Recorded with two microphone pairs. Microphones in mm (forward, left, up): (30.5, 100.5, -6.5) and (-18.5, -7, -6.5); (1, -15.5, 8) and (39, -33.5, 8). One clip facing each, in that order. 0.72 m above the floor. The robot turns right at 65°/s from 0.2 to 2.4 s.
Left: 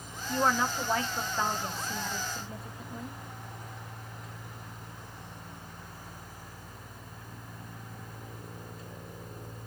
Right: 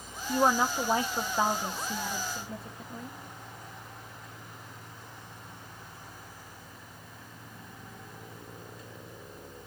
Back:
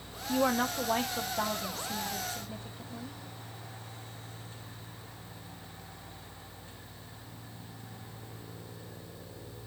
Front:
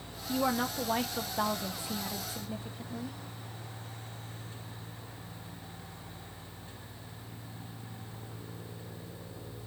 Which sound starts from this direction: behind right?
A woman speaking, at 0.3 s.